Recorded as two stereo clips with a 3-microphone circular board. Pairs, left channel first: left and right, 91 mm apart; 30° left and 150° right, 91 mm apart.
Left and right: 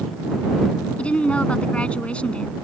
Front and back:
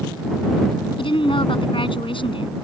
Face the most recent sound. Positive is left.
turn(degrees=10)